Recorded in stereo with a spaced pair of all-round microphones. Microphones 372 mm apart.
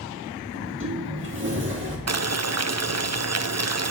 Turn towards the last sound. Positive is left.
turn(degrees=-45)  # may be behind; listen again after turning